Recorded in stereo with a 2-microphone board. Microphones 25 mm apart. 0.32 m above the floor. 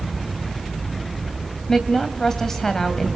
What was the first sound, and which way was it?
A woman speaking, 15° left (ahead or behind).